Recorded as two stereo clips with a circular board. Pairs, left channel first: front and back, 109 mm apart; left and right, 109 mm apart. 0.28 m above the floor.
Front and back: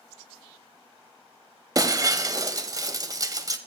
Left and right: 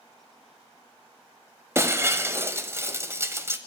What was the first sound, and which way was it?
Breaking glass, 145° right.